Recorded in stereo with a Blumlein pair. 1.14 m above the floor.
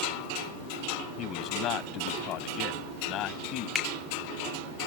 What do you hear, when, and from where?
1.2 s a man speaking: 35° left
3.8 s a finger snap: 10° left